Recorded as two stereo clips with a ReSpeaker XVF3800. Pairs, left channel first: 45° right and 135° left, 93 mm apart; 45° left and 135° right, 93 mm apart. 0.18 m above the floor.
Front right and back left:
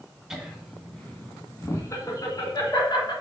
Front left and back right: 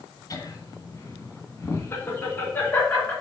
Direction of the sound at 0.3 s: 50° left.